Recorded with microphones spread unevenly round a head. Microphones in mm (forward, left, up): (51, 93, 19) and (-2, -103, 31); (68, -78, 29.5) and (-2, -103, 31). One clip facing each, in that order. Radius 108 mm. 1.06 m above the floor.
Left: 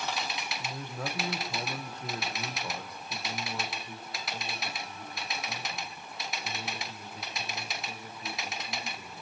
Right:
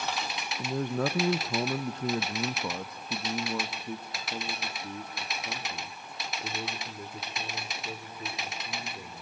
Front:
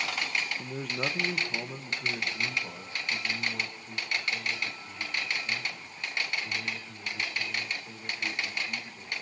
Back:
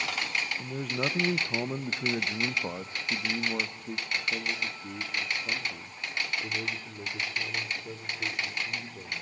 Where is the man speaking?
65° right, 1.0 m; by 9.2 s 135° right, 4.5 m.